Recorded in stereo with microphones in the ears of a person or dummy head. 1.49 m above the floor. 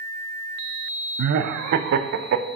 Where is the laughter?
55° right (ahead or behind), 0.5 m.